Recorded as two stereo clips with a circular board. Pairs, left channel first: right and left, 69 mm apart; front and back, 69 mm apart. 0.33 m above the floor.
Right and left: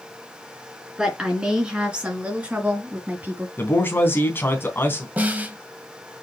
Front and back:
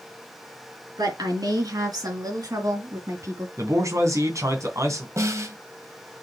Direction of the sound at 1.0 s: 170° left.